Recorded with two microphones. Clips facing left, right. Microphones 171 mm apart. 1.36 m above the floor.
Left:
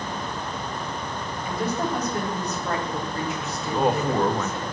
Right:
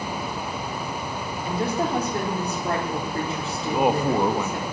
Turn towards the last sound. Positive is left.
turn(degrees=-15)  # may be behind; listen again after turning